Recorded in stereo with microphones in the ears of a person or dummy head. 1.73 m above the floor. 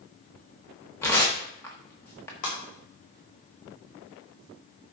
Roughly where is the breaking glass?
Left.